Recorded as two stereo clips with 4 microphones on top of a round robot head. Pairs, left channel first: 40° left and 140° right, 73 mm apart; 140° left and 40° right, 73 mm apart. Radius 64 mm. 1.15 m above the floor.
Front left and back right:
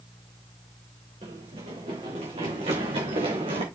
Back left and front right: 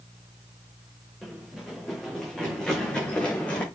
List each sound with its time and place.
1.2 s running footsteps: 130° right, 5.5 m; by 3.6 s 150° right, 4.5 m